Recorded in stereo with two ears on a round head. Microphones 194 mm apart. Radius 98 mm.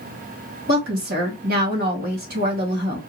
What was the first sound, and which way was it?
A woman speaking, 50° right (ahead or behind).